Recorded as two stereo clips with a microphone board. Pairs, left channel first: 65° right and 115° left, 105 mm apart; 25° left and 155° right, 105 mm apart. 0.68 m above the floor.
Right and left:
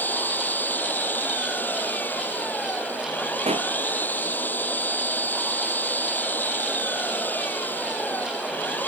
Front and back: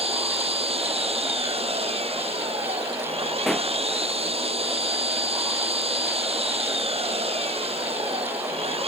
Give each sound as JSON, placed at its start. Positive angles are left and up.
{"t": 0.0, "sound": "an engine running", "azimuth_deg": -140}
{"t": 3.5, "sound": "a pop", "azimuth_deg": 110}